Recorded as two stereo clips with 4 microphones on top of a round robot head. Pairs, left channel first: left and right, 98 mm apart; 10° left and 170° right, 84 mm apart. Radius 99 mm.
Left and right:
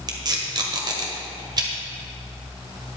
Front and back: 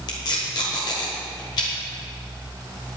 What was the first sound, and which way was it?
Tape being pulled, 40° right.